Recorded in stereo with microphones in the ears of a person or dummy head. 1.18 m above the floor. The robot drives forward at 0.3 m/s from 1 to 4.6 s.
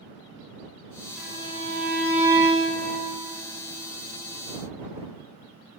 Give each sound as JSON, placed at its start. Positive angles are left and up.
{"t": 1.2, "sound": "a violin", "side_deg": -5, "distance_m": 0.9}